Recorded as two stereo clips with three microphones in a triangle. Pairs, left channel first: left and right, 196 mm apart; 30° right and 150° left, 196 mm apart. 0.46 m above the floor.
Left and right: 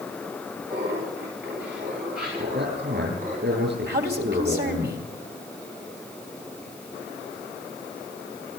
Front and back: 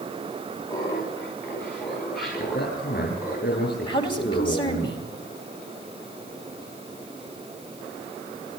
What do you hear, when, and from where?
0.7 s laughter: 100° right, 5 m; by 3.4 s 130° right, 6 m
2.4 s a man speaking: 65° right, 7.5 m
3.9 s a man speaking: 90° right, 3 m